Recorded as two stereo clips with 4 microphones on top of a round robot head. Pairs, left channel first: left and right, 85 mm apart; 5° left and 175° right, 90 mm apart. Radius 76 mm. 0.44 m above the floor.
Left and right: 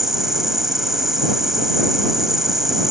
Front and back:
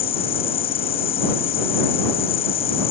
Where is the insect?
5° right.